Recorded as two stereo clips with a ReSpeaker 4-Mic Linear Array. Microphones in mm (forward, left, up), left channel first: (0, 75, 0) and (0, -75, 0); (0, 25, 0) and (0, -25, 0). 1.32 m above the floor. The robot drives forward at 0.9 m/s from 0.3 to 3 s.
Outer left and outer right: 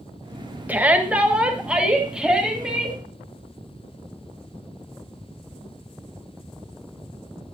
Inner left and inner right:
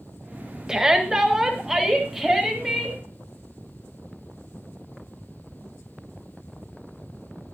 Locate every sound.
0.7 s a shout: 10° right (ahead or behind), 1.3 m; by 3.0 s 5° right (ahead or behind), 3.5 m